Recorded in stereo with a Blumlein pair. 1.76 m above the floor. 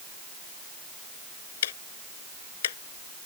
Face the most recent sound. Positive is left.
turn(degrees=60)